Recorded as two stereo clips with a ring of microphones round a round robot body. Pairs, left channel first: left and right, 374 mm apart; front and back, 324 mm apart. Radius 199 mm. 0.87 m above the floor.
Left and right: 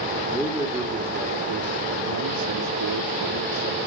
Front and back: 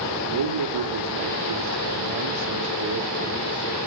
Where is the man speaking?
Straight behind, 2.5 m; by 3.8 s 110° right, 2.5 m.